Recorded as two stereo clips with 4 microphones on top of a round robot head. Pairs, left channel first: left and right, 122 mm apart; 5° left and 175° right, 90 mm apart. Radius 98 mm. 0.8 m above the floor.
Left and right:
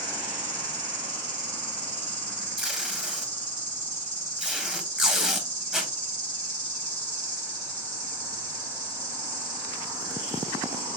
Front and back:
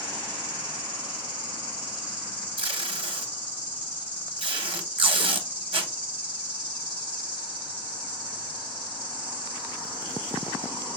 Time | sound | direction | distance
0.0 | an insect | 100° right | 2 m
2.6 | tape being pulled | 175° right | 0.8 m